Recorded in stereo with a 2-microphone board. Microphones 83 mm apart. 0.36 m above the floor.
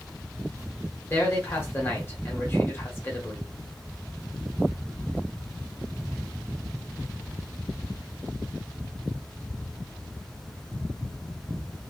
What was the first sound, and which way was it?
A man speaking, 30° left (ahead or behind).